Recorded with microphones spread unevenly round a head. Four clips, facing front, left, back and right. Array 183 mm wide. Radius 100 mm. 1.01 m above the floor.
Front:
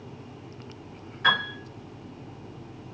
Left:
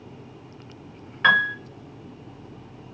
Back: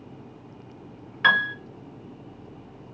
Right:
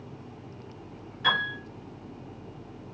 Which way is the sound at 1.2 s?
120° left.